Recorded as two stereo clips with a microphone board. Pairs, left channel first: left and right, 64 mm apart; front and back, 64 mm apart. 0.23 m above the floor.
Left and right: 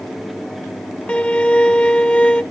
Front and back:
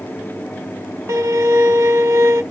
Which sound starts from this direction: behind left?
A violin, at 1.1 s.